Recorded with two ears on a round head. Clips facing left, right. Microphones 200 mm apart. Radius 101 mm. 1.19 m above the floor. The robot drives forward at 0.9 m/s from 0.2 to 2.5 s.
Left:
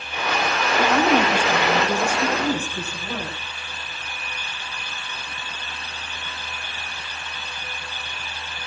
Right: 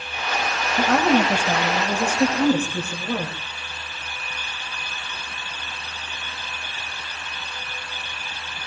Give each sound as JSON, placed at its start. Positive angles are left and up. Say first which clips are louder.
{"t": 0.8, "sound": "a woman speaking", "louder": "right 1 dB", "side_deg": -50, "distance_m": 6.0}